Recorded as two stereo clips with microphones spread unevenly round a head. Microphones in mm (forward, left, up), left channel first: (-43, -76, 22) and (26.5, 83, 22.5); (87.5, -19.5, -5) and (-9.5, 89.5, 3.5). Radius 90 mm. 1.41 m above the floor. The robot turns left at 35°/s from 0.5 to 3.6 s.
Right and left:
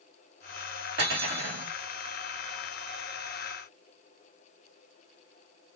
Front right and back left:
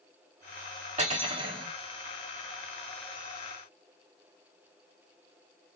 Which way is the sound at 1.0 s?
95° left.